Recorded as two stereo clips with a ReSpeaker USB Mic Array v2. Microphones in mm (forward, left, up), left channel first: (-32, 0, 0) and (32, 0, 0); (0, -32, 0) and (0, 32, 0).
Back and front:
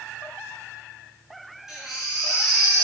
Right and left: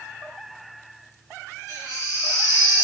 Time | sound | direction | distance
1.7 | a baby crying | 85° left | 4 m